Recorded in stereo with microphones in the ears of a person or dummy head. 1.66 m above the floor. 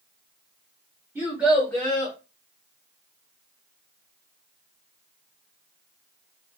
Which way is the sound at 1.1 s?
5° right (ahead or behind).